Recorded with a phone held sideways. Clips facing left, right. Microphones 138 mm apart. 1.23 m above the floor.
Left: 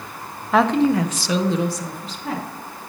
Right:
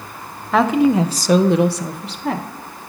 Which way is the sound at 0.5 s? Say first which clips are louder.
Right 2 dB; 5° left (ahead or behind).